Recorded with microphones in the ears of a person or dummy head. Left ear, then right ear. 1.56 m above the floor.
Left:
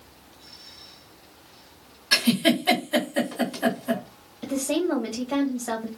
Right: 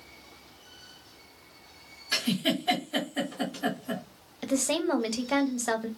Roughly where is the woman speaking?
Right.